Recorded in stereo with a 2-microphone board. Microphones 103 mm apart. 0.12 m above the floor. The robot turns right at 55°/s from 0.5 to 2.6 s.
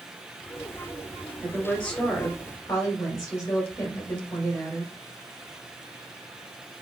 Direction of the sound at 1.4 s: 5° right.